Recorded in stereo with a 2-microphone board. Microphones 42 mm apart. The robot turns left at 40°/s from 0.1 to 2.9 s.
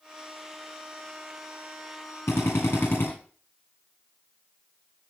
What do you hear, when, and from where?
2.3 s a drill: 80° left, 8.5 m; by 3.1 s 55° left (ahead or behind), 8.5 m